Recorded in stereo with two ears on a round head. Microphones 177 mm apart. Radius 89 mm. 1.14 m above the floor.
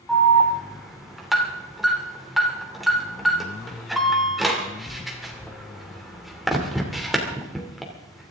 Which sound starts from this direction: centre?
An alarm, at 0.1 s.